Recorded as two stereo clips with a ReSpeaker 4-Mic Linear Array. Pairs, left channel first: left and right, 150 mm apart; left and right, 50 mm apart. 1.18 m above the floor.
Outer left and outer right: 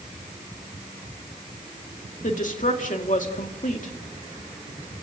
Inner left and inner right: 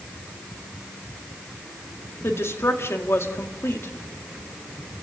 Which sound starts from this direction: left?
A woman speaking, at 2.2 s.